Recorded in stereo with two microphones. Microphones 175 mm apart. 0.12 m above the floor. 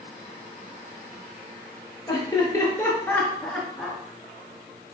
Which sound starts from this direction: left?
Laughter, at 2.1 s.